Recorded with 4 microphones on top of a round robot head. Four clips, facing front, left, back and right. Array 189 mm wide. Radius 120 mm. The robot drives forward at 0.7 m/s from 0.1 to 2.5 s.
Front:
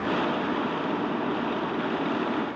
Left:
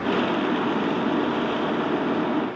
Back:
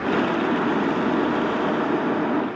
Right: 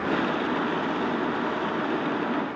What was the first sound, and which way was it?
Only background noise.